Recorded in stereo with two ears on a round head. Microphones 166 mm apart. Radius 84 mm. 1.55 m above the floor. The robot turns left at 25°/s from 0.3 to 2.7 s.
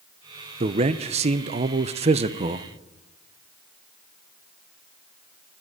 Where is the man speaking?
65° right, 0.5 m; by 2.7 s 115° right, 0.5 m.